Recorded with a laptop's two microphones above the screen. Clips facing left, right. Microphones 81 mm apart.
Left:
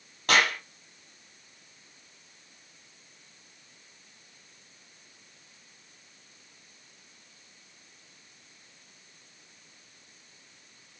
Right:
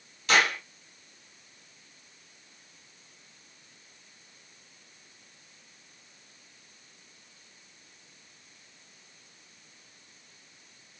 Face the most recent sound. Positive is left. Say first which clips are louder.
# even
turn(degrees=50)  # may be behind; listen again after turning